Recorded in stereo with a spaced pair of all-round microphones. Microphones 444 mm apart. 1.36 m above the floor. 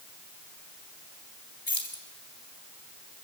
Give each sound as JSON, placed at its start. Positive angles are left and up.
{"t": 1.7, "sound": "keys jangling", "side_deg": 80, "distance_m": 3.0}